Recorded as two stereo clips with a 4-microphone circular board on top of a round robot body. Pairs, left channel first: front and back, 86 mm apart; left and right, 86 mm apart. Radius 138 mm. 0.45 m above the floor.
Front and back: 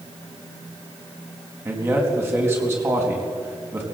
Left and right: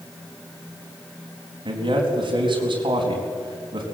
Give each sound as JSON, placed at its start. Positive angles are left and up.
{"t": 1.6, "sound": "a man speaking", "azimuth_deg": -120, "distance_m": 4.5}